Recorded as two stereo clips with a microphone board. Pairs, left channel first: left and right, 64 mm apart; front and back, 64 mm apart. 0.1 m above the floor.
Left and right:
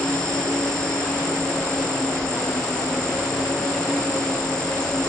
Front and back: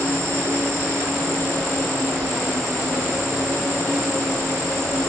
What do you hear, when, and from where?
0.0 s an insect: 165° left, 2.5 m